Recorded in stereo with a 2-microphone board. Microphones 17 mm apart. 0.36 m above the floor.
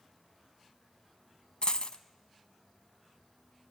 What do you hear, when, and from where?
1.6 s a dropped coin: 70° left (ahead or behind), 1.0 m